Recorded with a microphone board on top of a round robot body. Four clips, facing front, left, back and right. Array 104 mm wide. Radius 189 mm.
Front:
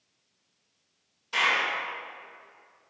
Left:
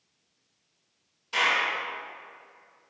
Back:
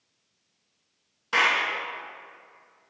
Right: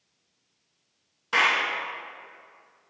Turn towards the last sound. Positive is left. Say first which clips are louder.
# right 2 dB, back 3 dB
turn(degrees=-135)